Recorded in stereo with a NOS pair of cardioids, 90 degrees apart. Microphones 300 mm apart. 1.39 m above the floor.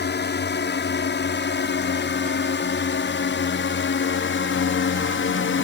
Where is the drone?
40° left; by 5.6 s 50° left.